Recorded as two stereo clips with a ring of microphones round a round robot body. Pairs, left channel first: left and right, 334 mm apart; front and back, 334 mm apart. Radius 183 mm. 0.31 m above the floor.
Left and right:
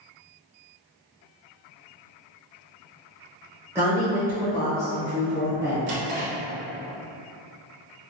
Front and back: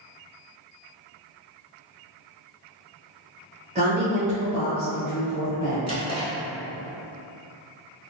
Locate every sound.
3.8 s a woman speaking: 160° right, 1.0 m
5.9 s a drawer: 105° right, 1.2 m